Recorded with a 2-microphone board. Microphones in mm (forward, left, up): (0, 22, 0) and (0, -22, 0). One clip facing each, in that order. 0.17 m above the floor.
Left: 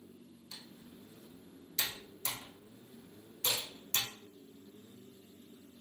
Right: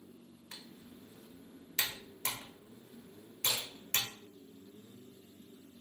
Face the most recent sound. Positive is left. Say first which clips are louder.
# even
turn(degrees=15)  # may be behind; listen again after turning